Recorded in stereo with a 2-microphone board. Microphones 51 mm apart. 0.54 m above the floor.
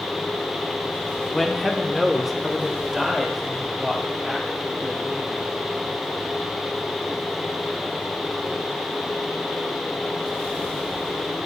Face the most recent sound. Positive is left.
turn(degrees=-5)  # may be behind; listen again after turning